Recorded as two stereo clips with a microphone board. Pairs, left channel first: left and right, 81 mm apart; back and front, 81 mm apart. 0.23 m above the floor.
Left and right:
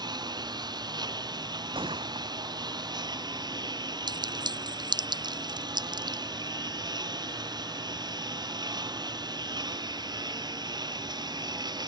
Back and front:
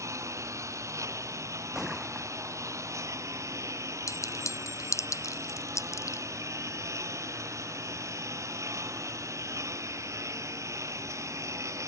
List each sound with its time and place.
0.0 s a lawn mower: 55° right
1.8 s a gunshot: 85° right
4.1 s a clink: 125° right